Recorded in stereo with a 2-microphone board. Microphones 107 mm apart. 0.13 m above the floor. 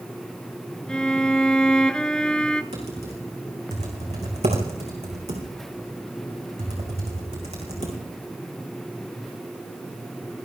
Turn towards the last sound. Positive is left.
turn(degrees=-85)